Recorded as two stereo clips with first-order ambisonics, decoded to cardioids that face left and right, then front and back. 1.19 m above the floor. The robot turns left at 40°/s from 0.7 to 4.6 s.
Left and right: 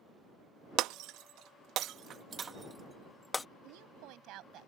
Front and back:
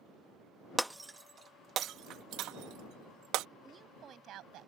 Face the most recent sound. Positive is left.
turn(degrees=-140)